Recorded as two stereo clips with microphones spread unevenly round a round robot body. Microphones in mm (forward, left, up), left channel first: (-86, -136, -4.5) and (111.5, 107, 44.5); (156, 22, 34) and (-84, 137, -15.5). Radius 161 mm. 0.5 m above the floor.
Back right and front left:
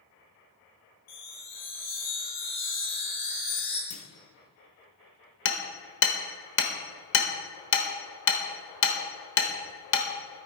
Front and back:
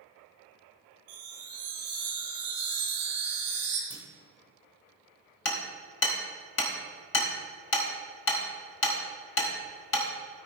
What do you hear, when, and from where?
1.1 s a chime: 165° left, 3 m
3.9 s a clunk: 100° right, 1.1 m
5.5 s hammering: 80° right, 1.0 m